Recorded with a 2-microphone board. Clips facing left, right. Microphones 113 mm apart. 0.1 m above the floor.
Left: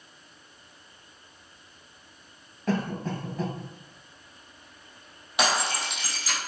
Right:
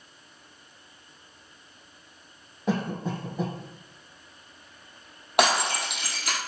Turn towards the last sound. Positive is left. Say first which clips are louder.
# right 3 dB
turn(degrees=-65)  # may be behind; listen again after turning